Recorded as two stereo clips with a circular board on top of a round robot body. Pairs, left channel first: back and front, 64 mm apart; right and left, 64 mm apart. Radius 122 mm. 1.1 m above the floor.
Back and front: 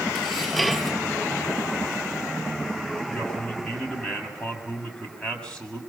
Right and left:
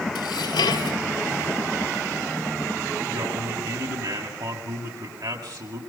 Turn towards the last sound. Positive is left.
turn(degrees=105)